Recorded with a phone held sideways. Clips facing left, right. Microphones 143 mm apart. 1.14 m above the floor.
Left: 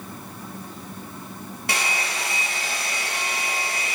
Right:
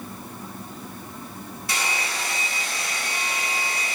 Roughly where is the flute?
No flute in this recording.